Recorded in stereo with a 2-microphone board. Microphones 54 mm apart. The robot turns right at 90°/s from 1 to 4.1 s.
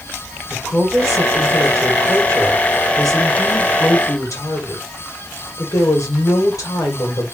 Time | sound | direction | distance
0.5 | a woman speaking | straight behind | 2.5 m